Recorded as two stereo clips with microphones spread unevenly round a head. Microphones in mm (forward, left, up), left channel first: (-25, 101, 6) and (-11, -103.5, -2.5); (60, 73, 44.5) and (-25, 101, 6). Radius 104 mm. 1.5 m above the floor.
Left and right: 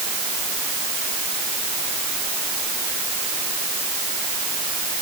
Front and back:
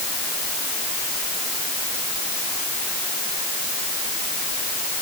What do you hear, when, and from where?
Only background noise.